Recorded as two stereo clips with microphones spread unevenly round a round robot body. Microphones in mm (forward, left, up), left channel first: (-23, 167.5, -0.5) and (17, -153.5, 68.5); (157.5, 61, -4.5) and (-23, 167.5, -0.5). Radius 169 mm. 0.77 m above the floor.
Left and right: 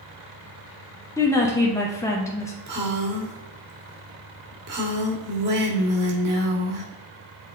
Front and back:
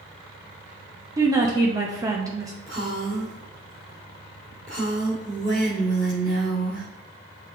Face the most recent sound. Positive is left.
turn(degrees=-145)